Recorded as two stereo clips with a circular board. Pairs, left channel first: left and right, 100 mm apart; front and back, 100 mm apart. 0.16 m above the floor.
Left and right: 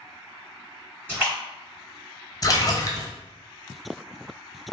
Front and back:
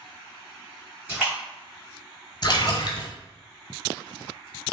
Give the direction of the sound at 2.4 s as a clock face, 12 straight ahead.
11 o'clock.